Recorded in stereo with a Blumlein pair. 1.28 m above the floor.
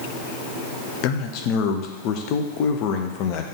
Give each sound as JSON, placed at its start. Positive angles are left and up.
{"t": 1.0, "sound": "a man speaking", "azimuth_deg": 40, "distance_m": 0.8}